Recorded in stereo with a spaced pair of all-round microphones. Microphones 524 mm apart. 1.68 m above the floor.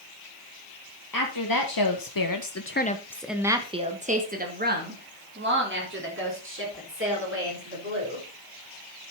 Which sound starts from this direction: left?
A woman speaking, at 1.1 s.